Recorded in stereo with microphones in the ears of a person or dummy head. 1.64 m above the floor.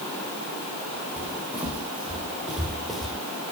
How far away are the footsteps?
About 5 m.